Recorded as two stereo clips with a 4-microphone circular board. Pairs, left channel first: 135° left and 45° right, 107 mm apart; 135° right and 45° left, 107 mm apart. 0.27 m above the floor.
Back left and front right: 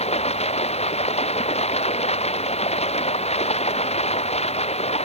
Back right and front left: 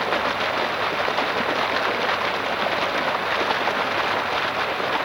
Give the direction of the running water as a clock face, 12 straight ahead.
8 o'clock.